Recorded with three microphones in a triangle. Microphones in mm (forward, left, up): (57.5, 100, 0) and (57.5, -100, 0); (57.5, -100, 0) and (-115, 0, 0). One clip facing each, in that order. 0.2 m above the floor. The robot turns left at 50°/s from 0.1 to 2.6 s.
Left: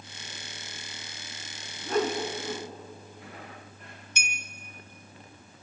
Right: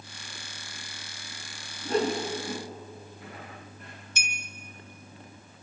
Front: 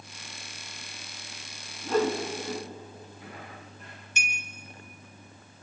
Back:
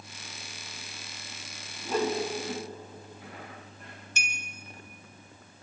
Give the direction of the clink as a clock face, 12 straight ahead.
8 o'clock.